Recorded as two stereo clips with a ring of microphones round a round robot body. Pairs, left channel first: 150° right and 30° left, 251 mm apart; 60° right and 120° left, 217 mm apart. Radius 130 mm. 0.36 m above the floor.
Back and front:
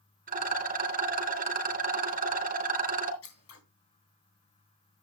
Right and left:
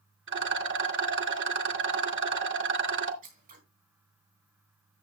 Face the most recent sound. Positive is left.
turn(degrees=180)